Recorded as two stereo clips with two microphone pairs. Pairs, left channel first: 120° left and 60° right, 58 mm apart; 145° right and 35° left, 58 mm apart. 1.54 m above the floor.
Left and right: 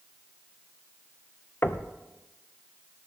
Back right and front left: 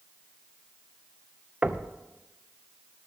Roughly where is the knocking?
Left.